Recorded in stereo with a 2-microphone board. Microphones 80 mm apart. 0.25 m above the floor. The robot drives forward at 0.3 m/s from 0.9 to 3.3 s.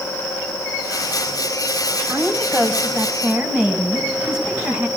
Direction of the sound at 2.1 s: 15° right (ahead or behind).